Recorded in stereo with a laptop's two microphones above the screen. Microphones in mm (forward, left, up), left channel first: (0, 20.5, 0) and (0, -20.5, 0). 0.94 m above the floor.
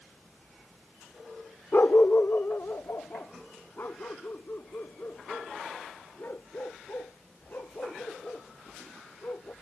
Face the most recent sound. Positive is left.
turn(degrees=55)  # may be behind; listen again after turning